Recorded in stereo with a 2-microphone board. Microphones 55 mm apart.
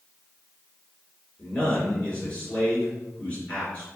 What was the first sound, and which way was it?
A man speaking, 25° left (ahead or behind).